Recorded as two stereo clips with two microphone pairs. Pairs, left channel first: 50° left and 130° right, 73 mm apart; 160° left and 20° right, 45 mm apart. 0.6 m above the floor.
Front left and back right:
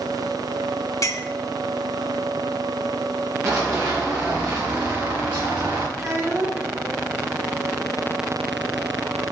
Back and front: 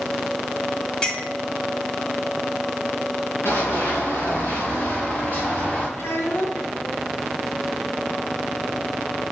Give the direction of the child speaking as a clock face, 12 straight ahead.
6 o'clock.